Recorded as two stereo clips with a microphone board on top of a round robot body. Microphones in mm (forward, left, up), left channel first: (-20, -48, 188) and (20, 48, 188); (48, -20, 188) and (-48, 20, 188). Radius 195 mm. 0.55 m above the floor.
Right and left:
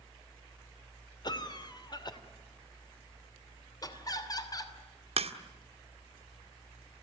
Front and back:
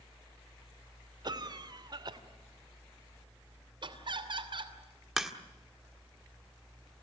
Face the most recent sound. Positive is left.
turn(degrees=70)